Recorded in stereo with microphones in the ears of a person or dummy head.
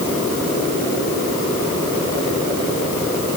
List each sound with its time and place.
Only background noise.